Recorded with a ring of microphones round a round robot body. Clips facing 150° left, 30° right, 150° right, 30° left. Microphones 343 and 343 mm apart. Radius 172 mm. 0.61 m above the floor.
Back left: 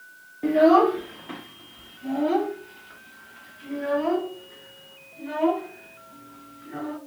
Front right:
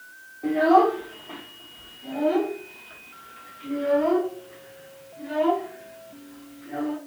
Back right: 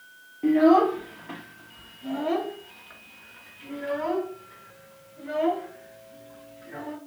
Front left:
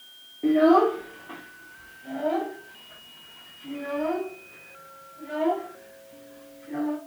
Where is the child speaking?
140° left, 0.7 m; by 7.0 s 125° right, 3.5 m.